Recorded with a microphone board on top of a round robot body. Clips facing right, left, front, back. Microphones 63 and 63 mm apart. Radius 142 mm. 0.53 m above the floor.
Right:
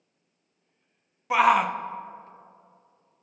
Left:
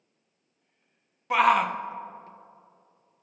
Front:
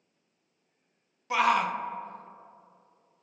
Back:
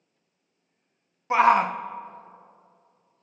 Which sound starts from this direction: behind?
A shout, at 1.3 s.